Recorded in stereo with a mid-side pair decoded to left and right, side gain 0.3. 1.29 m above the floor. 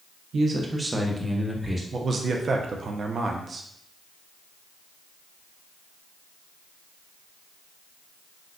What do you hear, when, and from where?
0.3 s a man speaking: 70° right, 0.6 m; by 1.8 s straight ahead, 1.4 m
1.9 s a man speaking: 60° right, 0.6 m